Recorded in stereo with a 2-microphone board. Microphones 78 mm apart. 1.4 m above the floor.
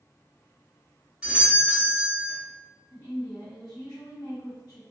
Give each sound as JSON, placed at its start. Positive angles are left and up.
{"t": 1.2, "sound": "a doorbell", "side_deg": -15, "distance_m": 1.4}
{"t": 2.9, "sound": "a woman speaking", "side_deg": 60, "distance_m": 1.3}